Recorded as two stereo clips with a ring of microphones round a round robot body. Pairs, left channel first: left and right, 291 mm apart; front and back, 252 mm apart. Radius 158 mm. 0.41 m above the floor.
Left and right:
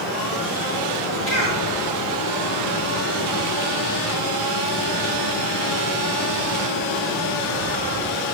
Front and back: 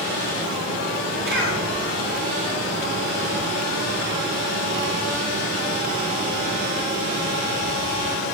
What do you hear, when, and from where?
1.3 s a cough: 140° left, 6 m